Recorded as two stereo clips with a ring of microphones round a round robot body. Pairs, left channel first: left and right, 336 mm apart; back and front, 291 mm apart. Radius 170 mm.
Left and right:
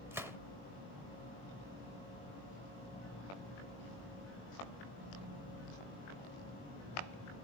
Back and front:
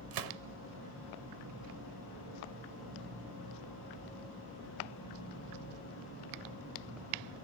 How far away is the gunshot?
About 0.9 m.